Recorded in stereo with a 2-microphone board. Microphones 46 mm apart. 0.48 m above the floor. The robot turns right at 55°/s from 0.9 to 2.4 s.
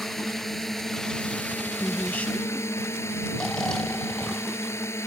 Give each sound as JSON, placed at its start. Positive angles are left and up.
{"t": 0.0, "sound": "a drone", "azimuth_deg": 5}
{"t": 1.8, "sound": "a woman speaking", "azimuth_deg": 125}
{"t": 3.3, "sound": "snoring", "side_deg": 15}